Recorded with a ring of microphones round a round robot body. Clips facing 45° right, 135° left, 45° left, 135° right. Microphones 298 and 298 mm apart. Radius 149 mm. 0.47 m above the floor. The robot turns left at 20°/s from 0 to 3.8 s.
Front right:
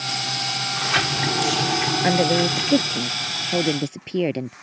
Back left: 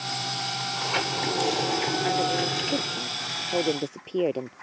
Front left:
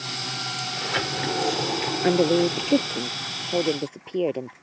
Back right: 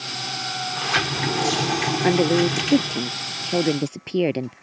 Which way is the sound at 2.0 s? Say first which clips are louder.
Front right 7 dB, back right 1 dB; 55° right.